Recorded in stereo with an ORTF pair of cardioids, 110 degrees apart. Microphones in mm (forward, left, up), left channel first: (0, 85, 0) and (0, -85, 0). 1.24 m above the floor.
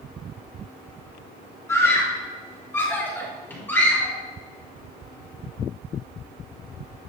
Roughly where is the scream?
Ahead.